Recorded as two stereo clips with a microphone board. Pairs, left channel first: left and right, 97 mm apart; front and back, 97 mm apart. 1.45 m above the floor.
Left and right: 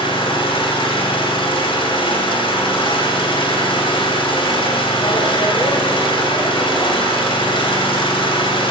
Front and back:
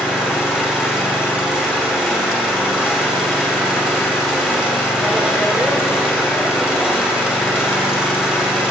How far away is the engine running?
About 2.5 m.